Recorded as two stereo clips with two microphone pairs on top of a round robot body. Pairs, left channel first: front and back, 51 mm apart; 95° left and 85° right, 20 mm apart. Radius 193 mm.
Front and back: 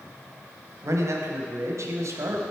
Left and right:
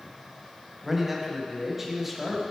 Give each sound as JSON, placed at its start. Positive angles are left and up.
{"t": 0.8, "sound": "a man speaking", "azimuth_deg": -160, "distance_m": 1.1}